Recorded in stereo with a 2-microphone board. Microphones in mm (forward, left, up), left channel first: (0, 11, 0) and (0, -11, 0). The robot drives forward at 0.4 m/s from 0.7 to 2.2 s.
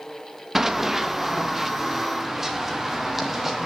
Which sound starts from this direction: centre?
Running footsteps, at 0.6 s.